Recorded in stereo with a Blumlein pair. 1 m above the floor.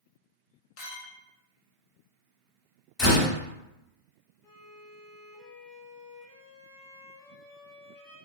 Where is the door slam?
20° left, 1.3 m.